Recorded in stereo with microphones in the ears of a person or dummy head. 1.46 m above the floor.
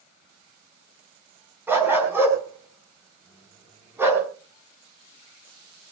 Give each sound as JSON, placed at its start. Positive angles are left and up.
{"t": 1.7, "sound": "a dog barking", "side_deg": -10, "distance_m": 4.5}